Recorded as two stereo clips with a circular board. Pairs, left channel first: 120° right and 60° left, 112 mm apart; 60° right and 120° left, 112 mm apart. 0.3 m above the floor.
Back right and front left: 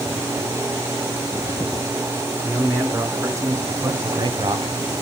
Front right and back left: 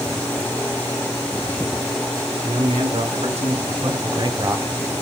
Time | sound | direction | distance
2.4 | a man speaking | 130° left | 3.5 m